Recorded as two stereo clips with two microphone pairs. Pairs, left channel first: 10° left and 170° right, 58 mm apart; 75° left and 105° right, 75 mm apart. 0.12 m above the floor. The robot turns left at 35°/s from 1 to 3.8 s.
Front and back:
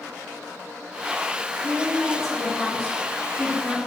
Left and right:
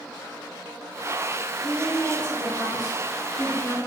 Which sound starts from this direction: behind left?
A woman speaking, at 1.6 s.